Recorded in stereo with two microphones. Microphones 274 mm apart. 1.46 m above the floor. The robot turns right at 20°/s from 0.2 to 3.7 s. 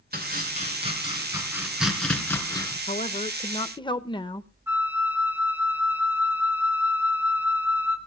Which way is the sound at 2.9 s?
30° left (ahead or behind).